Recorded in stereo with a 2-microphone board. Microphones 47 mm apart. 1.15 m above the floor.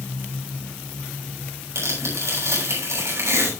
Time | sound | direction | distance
1.8 | tearing paper | 85° right | 8 m